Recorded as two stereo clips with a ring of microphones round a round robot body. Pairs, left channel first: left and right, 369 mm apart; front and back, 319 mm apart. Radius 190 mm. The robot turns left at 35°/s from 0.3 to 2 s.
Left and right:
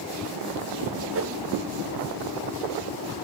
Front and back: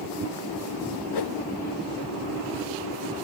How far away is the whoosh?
About 0.5 m.